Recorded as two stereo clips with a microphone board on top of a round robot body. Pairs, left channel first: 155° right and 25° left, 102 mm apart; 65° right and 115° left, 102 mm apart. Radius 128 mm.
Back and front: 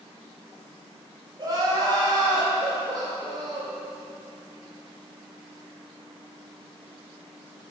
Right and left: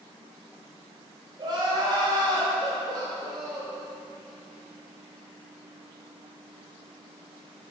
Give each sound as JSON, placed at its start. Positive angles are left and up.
{"t": 1.4, "sound": "crying", "azimuth_deg": 70, "distance_m": 1.5}